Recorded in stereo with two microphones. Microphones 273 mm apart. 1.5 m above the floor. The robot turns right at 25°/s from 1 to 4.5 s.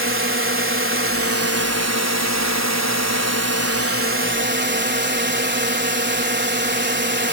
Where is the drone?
130° right; by 7.3 s 40° right.